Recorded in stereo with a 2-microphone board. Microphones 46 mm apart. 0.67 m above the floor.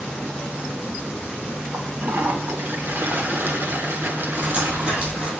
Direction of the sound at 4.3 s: 30° right (ahead or behind).